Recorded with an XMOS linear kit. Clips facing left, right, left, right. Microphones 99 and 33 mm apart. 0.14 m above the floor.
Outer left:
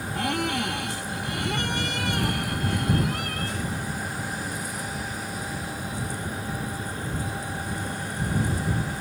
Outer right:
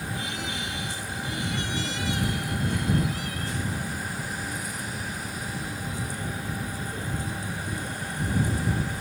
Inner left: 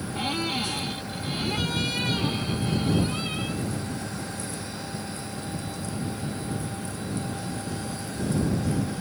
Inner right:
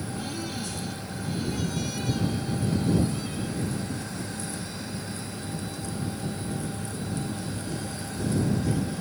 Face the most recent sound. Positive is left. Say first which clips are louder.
# outer left 7 dB, inner left 9 dB
turn(degrees=55)  # may be behind; listen again after turning